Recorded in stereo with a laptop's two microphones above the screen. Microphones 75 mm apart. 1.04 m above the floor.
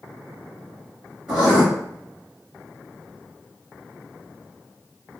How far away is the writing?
About 1.6 m.